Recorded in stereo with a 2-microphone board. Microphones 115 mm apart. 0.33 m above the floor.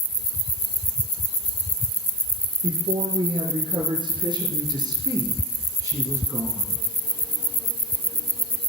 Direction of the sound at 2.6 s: 50° right (ahead or behind).